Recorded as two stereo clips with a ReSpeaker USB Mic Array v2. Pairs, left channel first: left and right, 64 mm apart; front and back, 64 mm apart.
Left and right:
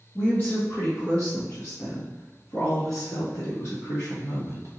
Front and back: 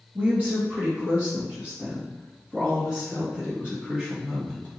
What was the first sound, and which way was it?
A woman speaking, 135° left.